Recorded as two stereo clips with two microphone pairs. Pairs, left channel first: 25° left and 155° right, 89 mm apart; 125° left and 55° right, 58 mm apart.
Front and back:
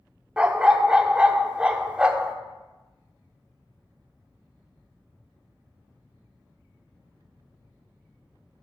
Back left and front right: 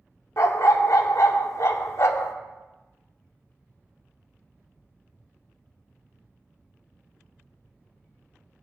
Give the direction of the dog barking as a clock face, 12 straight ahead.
8 o'clock.